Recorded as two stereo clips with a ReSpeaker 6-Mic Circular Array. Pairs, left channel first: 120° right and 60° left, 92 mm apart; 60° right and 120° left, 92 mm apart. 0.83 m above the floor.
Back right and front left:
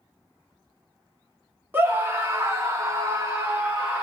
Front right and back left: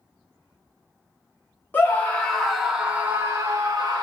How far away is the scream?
About 1.2 m.